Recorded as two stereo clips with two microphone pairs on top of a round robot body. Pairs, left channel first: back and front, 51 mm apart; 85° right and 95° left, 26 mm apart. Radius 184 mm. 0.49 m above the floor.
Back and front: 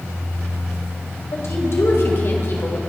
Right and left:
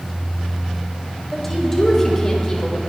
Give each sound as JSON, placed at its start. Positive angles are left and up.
{"t": 1.3, "sound": "a woman speaking", "azimuth_deg": -165, "distance_m": 4.0}